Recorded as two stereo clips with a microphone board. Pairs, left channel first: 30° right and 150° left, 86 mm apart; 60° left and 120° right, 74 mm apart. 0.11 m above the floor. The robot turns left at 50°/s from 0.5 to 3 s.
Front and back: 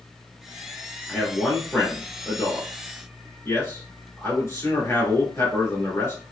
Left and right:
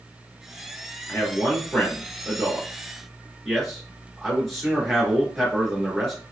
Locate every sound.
1.1 s a man speaking: 70° left, 1.6 m; by 6.2 s 25° right, 1.6 m